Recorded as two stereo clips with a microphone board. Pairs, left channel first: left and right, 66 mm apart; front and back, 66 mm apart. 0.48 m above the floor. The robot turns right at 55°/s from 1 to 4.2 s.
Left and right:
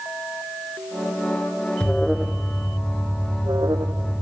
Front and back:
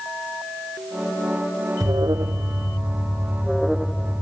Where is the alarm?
165° left; by 4.2 s 65° right.